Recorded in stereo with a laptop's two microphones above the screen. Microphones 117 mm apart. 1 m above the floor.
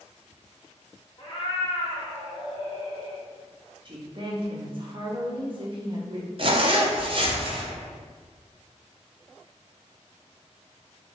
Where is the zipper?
45° right (ahead or behind), 0.6 m.